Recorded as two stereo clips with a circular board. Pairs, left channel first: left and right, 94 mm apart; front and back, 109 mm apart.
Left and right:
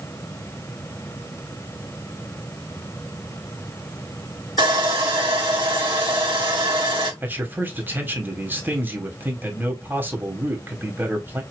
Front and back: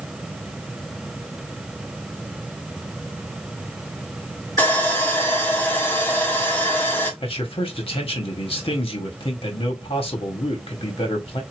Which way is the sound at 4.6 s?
70° right.